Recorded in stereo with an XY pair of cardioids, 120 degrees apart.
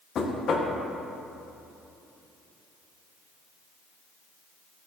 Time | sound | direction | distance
0.1 | knocking | 50° left | 1.2 m